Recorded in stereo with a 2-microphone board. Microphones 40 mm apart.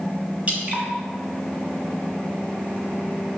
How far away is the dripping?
About 1.0 m.